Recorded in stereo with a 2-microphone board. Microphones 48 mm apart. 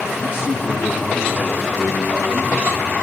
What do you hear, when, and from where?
0.2 s a man speaking: 40° right (ahead or behind), 6.5 m; by 2.9 s 30° right (ahead or behind), 6 m